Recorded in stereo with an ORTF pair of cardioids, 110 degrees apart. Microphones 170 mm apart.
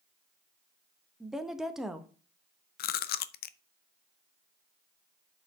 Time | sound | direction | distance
1.2 | a woman speaking | 5° right | 1.3 m
2.8 | chewing | 65° left | 0.6 m